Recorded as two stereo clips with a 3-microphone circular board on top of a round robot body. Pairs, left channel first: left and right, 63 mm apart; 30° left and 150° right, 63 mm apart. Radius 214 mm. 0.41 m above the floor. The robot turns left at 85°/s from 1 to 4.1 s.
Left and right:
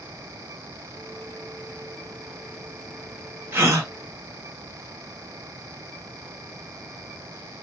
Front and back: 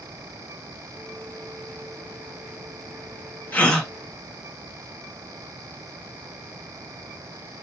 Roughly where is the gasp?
Ahead right.